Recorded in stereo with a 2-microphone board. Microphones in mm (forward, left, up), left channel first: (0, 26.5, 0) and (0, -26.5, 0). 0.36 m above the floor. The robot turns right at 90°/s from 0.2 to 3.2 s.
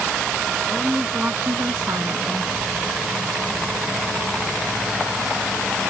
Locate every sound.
0.7 s a woman speaking: 170° left; by 2.5 s 30° right